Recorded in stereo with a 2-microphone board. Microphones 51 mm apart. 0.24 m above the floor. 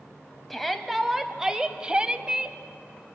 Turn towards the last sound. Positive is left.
turn(degrees=-20)  # may be behind; listen again after turning